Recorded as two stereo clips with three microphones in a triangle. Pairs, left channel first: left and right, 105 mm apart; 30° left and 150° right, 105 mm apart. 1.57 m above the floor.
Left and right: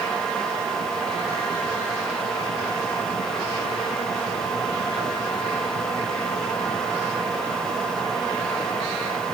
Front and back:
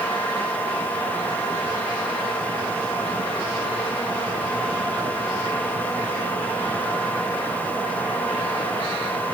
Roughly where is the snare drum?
I don't hear a snare drum.